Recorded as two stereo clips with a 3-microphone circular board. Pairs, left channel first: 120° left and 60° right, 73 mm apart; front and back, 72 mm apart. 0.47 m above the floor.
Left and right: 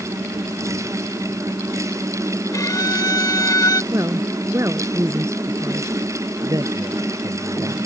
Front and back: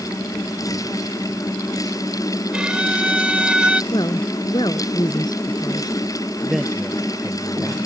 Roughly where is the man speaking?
Right.